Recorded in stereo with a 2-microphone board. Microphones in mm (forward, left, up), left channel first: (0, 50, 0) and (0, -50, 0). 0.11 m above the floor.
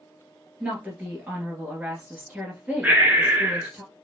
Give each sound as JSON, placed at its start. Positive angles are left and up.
{"t": 0.6, "sound": "a woman speaking", "side_deg": -15, "distance_m": 1.5}
{"t": 2.8, "sound": "breathing", "side_deg": -15, "distance_m": 1.0}